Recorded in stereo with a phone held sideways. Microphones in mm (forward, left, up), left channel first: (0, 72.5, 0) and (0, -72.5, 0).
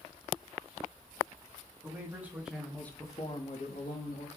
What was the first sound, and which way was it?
A man speaking, 20° right (ahead or behind).